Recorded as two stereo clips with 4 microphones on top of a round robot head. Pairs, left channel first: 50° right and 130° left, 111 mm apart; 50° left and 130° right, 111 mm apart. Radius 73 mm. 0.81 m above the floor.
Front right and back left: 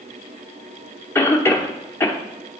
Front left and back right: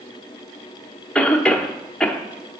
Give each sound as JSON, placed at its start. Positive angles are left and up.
{"t": 1.1, "sound": "a cough", "azimuth_deg": -20, "distance_m": 0.9}